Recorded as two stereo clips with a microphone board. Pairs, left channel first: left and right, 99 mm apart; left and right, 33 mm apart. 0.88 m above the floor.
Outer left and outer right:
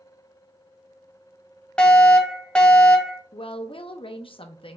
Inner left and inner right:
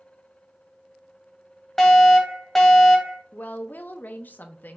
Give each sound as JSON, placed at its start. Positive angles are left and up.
{"t": 1.8, "sound": "a fire alarm", "side_deg": 10, "distance_m": 1.2}
{"t": 3.3, "sound": "a woman speaking", "side_deg": 55, "distance_m": 0.7}